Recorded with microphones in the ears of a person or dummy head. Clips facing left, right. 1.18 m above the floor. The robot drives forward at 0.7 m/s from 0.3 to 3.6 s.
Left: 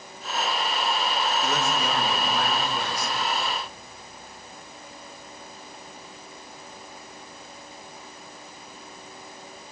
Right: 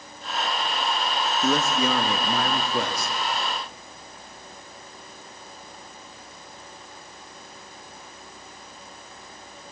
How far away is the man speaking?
About 1.7 m.